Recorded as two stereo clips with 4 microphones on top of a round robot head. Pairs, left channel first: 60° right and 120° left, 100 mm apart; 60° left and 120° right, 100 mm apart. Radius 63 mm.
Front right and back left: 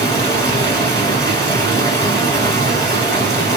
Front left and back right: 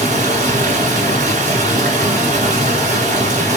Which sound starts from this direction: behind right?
Running water, at 0.0 s.